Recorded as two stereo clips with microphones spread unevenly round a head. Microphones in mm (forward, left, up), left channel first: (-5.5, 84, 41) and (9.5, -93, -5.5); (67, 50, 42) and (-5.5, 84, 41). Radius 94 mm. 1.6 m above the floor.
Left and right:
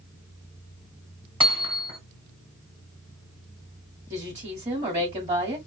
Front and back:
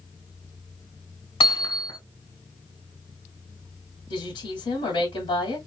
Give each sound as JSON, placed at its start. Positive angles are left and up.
{"t": 1.4, "sound": "hammering", "azimuth_deg": -15, "distance_m": 3.0}
{"t": 4.1, "sound": "a woman speaking", "azimuth_deg": -20, "distance_m": 2.5}